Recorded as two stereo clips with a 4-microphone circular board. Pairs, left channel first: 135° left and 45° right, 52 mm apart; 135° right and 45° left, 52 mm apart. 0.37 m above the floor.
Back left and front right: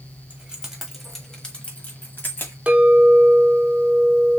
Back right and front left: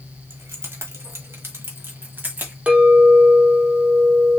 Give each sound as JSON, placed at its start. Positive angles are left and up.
{"t": 0.3, "sound": "keys jangling", "azimuth_deg": 20, "distance_m": 1.5}
{"t": 2.7, "sound": "a clink", "azimuth_deg": 0, "distance_m": 0.9}